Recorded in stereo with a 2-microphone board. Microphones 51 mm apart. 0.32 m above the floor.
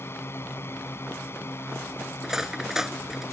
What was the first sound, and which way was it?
A drone, 50° left (ahead or behind).